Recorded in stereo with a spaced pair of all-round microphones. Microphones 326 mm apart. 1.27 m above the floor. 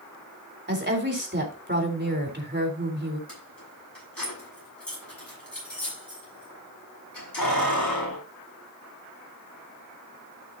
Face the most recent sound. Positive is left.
turn(degrees=85)